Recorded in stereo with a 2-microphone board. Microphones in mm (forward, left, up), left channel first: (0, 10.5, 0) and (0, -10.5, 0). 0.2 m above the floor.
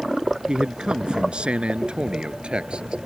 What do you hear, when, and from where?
0.5 s a man speaking: 45° right (ahead or behind); by 3.0 s 55° right (ahead or behind)